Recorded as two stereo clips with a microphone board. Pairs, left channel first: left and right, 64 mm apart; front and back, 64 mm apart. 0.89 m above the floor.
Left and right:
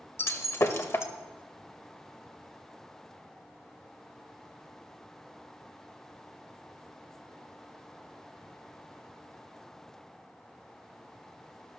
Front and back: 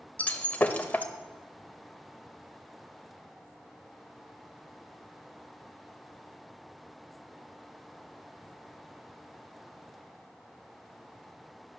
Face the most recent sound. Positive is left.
turn(degrees=60)